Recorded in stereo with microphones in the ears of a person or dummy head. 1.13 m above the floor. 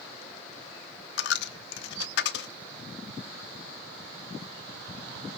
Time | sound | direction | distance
1.2 | a dropped coin | 60° left (ahead or behind) | 0.9 m